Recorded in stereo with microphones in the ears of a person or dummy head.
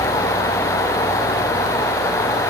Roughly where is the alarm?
I don't hear an alarm.